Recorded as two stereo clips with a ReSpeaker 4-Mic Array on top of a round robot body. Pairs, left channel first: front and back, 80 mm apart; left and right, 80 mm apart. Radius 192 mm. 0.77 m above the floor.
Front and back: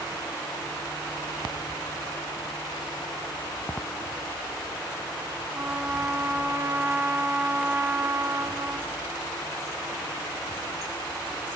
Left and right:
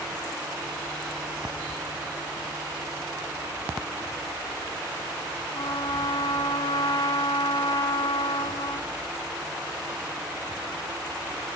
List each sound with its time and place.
5.5 s a trumpet: 120° left, 1.1 m